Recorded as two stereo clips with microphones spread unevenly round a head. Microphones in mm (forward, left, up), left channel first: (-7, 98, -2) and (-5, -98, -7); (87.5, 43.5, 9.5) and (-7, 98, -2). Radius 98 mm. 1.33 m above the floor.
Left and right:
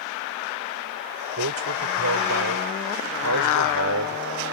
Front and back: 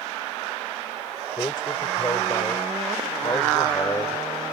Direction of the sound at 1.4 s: 100° right.